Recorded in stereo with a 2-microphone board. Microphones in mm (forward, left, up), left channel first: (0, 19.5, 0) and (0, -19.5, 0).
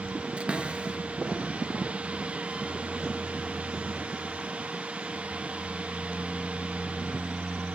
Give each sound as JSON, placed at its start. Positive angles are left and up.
{"t": 0.4, "sound": "a cupboard door", "side_deg": -30, "distance_m": 1.6}